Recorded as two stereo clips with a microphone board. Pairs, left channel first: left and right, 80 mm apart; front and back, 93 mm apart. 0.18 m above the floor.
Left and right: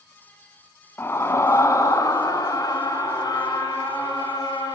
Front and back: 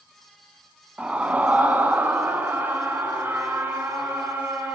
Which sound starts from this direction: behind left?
A scream, at 1.0 s.